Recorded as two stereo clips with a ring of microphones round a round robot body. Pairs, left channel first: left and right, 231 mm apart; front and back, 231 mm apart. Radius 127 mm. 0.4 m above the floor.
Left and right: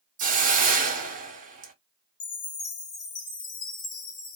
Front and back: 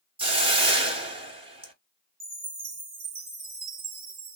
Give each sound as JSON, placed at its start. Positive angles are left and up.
{"t": 0.2, "sound": "a hiss", "azimuth_deg": -125, "distance_m": 1.3}
{"t": 2.2, "sound": "a chime", "azimuth_deg": 120, "distance_m": 1.7}